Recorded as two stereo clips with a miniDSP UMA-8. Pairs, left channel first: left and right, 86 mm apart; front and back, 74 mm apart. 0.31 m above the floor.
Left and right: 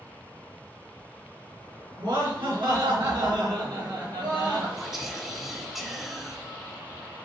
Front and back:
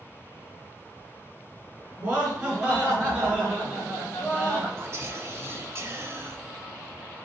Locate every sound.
2.0 s laughter: 110° right, 4 m
4.8 s whispering: 175° right, 1.2 m